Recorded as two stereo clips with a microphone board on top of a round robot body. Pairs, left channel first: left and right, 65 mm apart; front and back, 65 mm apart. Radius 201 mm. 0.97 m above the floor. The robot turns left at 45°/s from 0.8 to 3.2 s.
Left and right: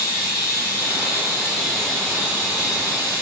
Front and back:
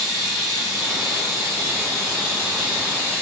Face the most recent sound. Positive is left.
turn(degrees=115)